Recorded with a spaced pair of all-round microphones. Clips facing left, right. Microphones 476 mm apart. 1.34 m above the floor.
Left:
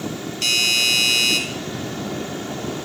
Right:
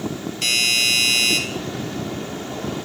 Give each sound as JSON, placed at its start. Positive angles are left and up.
{"t": 0.4, "sound": "a doorbell", "side_deg": -70, "distance_m": 2.5}